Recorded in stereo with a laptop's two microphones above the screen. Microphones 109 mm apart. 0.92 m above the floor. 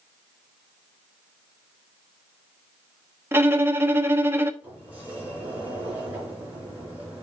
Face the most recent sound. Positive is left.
turn(degrees=-15)  # may be behind; listen again after turning